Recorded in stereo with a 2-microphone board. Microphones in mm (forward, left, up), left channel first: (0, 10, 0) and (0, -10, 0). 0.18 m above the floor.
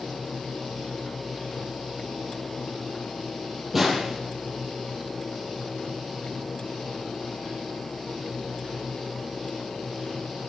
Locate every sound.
3.7 s a snare drum: 10° right (ahead or behind), 5.5 m